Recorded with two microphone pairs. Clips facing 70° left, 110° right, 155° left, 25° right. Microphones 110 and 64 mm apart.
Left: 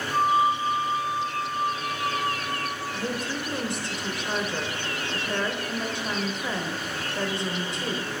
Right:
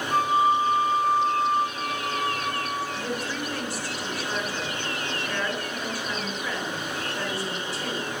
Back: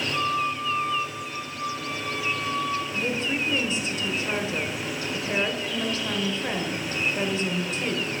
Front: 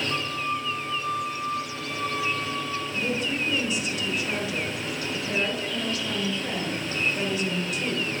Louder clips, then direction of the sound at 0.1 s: Right 1 dB, back 3 dB; 80° right.